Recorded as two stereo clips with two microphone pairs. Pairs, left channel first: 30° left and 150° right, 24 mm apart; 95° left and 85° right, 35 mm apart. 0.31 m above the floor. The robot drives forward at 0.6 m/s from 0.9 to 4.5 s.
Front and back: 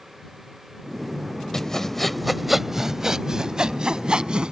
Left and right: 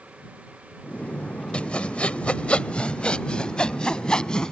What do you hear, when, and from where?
1.5 s sawing: 65° left; by 4.5 s 165° left